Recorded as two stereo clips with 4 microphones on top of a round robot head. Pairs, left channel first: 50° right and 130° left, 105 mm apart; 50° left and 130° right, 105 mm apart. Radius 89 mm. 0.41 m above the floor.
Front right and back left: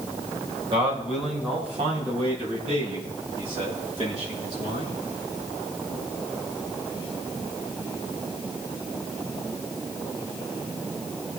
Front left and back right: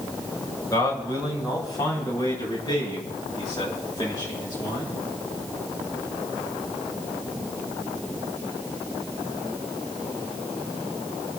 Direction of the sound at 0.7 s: 100° left.